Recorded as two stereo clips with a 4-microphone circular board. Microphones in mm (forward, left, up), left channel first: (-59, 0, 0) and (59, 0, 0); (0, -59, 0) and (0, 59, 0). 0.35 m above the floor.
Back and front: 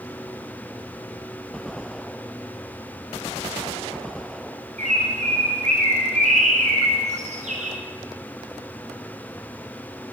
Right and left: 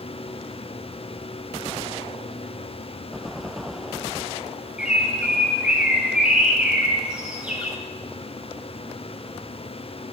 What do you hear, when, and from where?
4.8 s a bird: 10° left, 5 m